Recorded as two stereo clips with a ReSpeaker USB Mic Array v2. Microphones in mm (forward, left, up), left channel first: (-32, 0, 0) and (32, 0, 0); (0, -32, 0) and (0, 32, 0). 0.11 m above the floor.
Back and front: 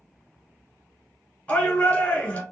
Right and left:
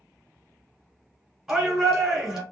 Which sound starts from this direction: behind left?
A shout, at 1.5 s.